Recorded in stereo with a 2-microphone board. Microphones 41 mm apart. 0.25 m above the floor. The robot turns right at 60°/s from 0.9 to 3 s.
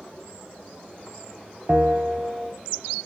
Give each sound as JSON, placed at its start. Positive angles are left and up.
{"t": 1.7, "sound": "a bell", "azimuth_deg": -45, "distance_m": 0.6}